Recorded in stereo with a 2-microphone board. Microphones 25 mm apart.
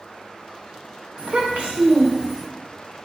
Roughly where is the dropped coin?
I don't hear a dropped coin.